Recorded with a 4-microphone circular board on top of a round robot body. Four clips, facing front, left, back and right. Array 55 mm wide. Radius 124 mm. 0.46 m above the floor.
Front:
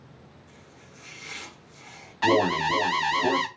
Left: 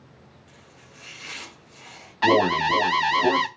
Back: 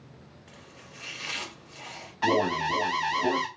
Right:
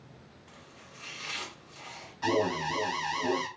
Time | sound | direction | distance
0.5 | chopping | straight behind | 3.5 m
2.2 | an alarm | 75° left | 0.6 m